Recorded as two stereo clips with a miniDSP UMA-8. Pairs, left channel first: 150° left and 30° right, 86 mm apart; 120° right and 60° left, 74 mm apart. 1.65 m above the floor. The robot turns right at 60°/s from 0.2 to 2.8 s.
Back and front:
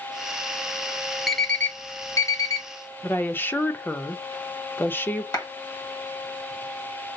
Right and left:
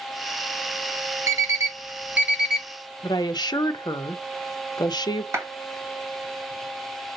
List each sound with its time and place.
1.3 s an alarm clock: 60° left, 1.0 m; by 2.7 s 145° left, 1.0 m
3.0 s a woman speaking: 145° right, 0.8 m
5.3 s a clap: 110° left, 2.0 m